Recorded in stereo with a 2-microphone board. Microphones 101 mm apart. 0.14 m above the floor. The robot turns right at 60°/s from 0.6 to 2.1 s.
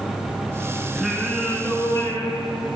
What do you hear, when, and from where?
0.9 s singing: 10° right, 1.3 m; by 2.7 s 60° left, 1.3 m